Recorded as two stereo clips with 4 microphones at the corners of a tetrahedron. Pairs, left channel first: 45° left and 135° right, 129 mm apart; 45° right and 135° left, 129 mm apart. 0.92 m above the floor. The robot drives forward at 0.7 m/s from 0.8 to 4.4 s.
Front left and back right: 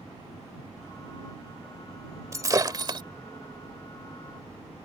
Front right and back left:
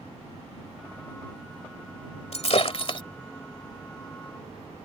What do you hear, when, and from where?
2.3 s breaking glass: 70° right; by 3.0 s 90° right